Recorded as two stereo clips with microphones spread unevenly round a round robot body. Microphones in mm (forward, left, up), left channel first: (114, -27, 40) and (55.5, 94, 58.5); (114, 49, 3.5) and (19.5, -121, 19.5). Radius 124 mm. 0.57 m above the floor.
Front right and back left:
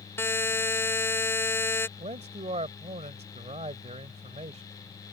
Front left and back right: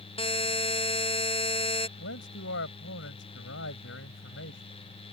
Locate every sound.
0.2 s a buzzer: 5° left
2.0 s a man speaking: 80° left